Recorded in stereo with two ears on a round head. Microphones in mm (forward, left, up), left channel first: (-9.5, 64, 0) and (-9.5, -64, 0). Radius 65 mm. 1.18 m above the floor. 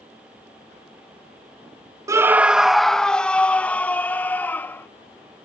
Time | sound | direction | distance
2.1 | a scream | 20° right (ahead or behind) | ?